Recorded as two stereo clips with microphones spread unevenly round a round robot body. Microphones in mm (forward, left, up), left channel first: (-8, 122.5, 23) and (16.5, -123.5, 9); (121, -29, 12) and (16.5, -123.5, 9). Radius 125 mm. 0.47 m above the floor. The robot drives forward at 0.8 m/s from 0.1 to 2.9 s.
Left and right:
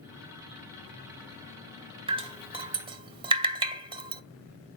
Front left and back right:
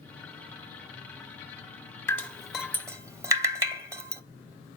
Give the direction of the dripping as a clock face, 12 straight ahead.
1 o'clock.